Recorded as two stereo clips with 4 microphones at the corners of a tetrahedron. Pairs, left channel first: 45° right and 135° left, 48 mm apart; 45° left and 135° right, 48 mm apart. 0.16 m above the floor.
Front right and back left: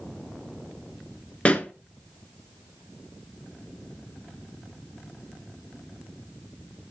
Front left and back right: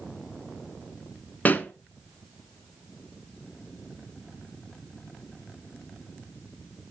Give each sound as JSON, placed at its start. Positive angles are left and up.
{"t": 1.4, "sound": "a pop", "azimuth_deg": 10, "distance_m": 0.8}